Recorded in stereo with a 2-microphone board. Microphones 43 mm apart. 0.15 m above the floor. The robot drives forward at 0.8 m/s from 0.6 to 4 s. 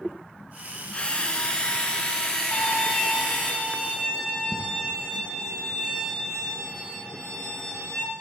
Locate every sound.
0.9 s a drill: 25° left (ahead or behind), 1.7 m; by 3.5 s 15° left (ahead or behind), 3.5 m
2.5 s a violin: 40° left (ahead or behind), 5.5 m; by 8.0 s 35° left (ahead or behind), 6 m